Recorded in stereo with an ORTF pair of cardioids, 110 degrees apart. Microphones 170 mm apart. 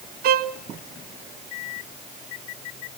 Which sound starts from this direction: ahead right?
A violin, at 0.2 s.